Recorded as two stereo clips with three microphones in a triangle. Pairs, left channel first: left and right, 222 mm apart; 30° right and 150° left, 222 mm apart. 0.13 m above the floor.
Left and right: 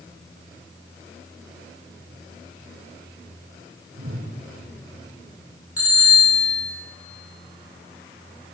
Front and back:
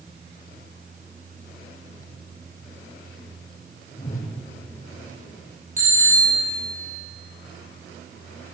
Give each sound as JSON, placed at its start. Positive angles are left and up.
{"t": 3.9, "sound": "a whoosh", "azimuth_deg": -80, "distance_m": 6.0}
{"t": 5.8, "sound": "a bicycle bell", "azimuth_deg": 95, "distance_m": 8.5}